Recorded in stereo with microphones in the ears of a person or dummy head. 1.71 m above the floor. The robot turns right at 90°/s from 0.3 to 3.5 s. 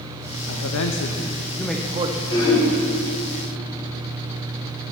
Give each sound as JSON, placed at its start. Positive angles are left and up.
{"t": 0.5, "sound": "a man speaking", "azimuth_deg": 75, "distance_m": 0.8}
{"t": 2.3, "sound": "throat clearing", "azimuth_deg": 155, "distance_m": 5.5}